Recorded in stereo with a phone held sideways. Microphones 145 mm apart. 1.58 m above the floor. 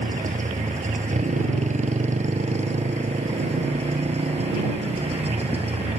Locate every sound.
0.0 s a motorcycle: 55° right (ahead or behind); by 6.0 s 45° right (ahead or behind)